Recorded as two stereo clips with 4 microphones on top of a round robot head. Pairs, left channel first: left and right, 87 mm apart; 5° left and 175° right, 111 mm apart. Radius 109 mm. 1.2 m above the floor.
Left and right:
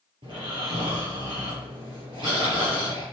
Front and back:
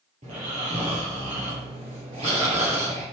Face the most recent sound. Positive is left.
turn(degrees=-135)